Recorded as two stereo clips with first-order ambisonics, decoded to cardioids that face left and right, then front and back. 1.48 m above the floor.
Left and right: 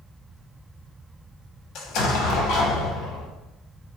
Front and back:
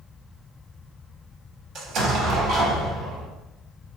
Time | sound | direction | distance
1.8 | an explosion | 130° left | 0.6 m